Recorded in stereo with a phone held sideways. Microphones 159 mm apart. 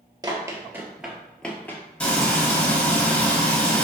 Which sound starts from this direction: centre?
Frying, at 2.0 s.